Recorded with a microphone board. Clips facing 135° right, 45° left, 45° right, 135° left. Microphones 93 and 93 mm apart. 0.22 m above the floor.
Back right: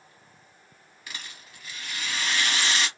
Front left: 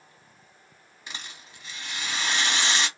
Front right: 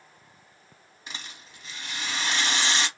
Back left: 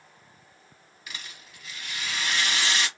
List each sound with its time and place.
1.1 s a rattle: 5° right, 1.2 m